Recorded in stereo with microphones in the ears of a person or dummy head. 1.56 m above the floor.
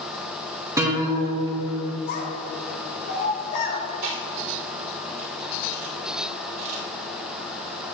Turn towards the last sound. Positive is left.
turn(degrees=-45)  # may be behind; listen again after turning